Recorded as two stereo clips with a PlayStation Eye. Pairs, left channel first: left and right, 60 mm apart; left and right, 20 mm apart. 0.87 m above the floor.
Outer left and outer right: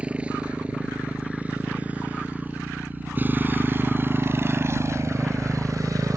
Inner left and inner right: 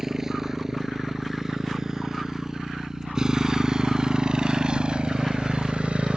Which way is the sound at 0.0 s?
20° right (ahead or behind).